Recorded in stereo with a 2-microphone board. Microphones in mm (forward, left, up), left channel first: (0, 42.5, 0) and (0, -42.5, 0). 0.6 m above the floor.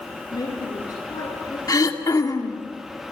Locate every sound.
0.3 s a woman speaking: 50° left (ahead or behind), 9.5 m; by 1.6 s 45° left (ahead or behind), 10.5 m
1.7 s throat clearing: 45° left (ahead or behind), 1.7 m